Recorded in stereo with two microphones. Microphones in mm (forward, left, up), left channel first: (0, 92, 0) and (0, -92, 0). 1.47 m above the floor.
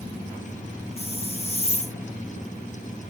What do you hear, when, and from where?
1.0 s a hiss: 35° left (ahead or behind), 1.7 m